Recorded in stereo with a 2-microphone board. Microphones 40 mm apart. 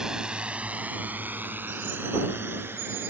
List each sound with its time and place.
0.0 s a drone: 15° right (ahead or behind); by 3.1 s 70° right (ahead or behind)